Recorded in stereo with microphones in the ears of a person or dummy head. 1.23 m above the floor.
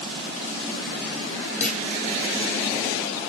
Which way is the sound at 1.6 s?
5° left (ahead or behind).